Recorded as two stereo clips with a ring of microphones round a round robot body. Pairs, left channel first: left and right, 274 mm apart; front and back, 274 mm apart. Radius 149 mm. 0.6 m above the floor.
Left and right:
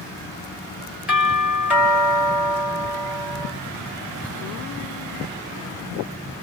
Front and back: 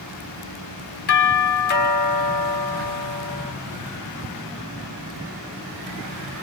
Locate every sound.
1.1 s a doorbell: 10° right, 1.3 m